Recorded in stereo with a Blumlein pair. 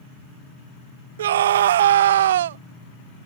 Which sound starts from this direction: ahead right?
A scream, at 1.2 s.